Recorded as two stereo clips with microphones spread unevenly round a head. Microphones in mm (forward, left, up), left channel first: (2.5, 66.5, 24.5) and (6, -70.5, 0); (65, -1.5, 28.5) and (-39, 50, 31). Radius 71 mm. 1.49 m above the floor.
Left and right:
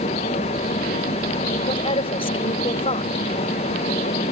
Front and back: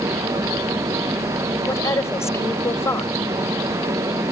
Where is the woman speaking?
40° left.